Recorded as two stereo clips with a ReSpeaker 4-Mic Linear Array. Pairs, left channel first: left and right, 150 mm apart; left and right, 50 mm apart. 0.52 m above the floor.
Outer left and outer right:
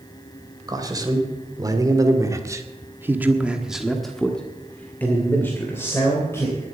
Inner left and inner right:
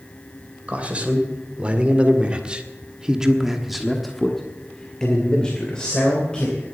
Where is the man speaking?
25° right (ahead or behind), 2.5 m; by 6.7 s 20° left (ahead or behind), 3 m.